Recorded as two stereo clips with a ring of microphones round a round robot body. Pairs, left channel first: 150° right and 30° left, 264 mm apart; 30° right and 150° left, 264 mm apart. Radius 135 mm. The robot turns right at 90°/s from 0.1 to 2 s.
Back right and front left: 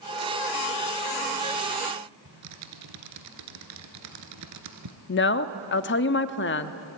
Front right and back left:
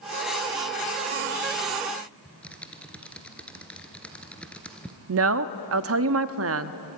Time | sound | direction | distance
2.2 | typing on a keyboard | 55° left | 1.7 m
5.1 | a woman speaking | 170° left | 0.9 m